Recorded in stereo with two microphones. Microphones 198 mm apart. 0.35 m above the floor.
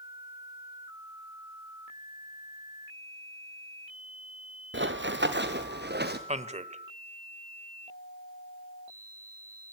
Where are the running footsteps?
70° right (ahead or behind), 2.5 m; by 6.2 s 55° right (ahead or behind), 3.5 m.